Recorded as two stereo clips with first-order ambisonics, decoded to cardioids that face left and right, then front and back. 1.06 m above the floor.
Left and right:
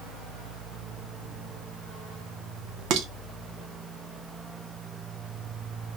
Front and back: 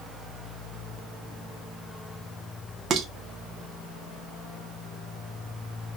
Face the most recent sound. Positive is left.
turn(degrees=-120)